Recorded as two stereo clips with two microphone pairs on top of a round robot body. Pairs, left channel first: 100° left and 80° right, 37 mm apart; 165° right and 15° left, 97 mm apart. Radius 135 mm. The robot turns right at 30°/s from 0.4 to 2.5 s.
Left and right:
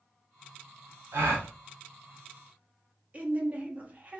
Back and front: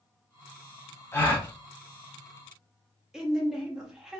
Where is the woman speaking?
70° right, 1.2 m.